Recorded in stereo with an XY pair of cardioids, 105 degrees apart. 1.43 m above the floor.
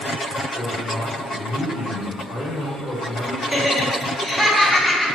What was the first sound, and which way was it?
A man speaking, 20° left.